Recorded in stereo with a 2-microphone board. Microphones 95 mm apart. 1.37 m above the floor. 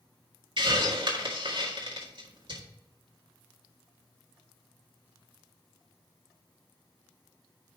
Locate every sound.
0.6 s a hiss: 55° right (ahead or behind), 1.8 m